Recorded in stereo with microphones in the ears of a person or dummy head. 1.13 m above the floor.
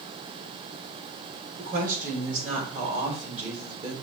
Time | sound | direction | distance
1.6 | a woman speaking | 45° right (ahead or behind) | 4.5 m